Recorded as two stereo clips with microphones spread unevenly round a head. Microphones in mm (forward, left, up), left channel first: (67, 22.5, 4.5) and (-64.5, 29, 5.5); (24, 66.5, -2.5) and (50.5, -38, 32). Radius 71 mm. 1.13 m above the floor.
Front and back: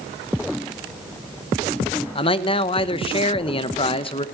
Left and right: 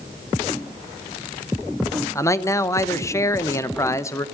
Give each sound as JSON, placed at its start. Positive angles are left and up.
{"t": 2.1, "sound": "a man speaking", "azimuth_deg": 45, "distance_m": 0.8}